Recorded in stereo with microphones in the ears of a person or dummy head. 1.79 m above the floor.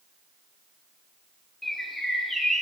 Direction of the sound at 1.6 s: Centre (ahead or behind).